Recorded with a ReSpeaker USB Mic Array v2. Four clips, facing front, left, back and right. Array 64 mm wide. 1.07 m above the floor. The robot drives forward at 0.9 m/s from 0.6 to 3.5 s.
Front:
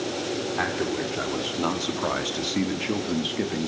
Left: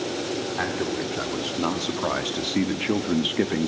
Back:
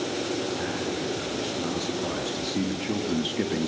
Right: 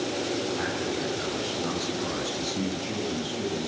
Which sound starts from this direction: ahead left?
A man speaking, at 0.6 s.